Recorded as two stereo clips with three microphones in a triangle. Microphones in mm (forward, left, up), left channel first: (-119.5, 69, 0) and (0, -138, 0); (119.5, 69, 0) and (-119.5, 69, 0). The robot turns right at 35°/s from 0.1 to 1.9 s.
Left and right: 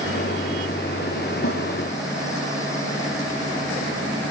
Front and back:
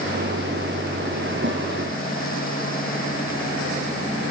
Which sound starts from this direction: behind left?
A snare drum, at 1.4 s.